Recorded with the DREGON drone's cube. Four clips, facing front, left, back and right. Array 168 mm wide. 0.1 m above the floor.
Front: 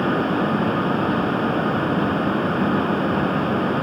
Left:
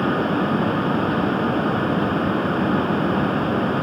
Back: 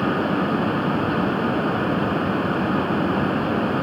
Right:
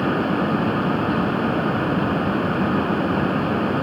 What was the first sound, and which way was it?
Only background noise.